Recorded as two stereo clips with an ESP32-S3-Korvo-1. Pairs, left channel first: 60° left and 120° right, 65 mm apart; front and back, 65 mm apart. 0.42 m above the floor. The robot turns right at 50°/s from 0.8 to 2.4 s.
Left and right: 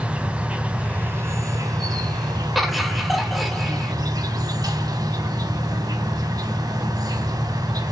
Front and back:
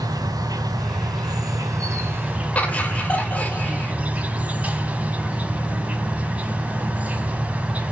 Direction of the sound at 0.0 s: 165° left.